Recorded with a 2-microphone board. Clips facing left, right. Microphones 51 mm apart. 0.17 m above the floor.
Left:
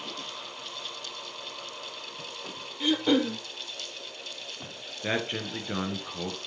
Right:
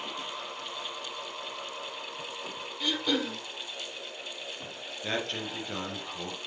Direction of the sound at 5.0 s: 20° left (ahead or behind).